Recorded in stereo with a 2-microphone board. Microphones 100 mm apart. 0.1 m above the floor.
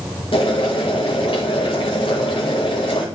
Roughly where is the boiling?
Left.